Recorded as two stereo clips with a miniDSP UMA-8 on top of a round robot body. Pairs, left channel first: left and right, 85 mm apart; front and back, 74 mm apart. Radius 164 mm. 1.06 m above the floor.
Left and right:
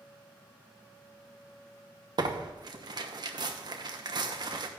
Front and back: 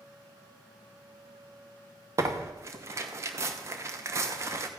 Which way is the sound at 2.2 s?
130° right.